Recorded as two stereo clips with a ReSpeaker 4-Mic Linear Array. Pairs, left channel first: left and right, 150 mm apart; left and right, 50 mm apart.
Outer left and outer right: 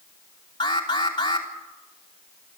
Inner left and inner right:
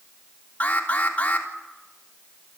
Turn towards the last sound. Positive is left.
turn(degrees=30)  # may be behind; listen again after turning